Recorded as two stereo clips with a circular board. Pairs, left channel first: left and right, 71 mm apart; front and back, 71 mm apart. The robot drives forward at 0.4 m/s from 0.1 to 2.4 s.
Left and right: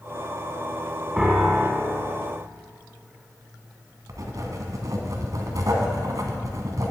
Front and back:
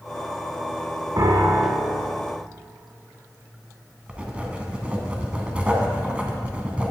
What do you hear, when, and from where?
1.2 s a piano: 170° right, 1.3 m
4.1 s writing: 110° right, 1.2 m